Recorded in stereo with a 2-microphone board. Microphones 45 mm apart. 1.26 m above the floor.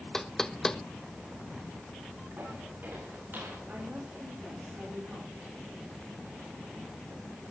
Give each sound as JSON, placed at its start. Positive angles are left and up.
{"t": 0.1, "sound": "knocking", "side_deg": 10, "distance_m": 0.6}
{"t": 2.4, "sound": "footsteps", "side_deg": -45, "distance_m": 7.5}
{"t": 3.7, "sound": "a woman speaking", "side_deg": -40, "distance_m": 5.5}